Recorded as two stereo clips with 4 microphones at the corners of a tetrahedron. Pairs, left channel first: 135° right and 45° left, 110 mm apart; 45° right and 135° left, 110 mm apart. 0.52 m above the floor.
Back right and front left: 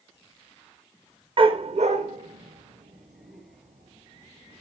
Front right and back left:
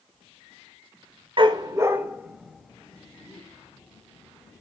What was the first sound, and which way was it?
A dog barking, 90° left.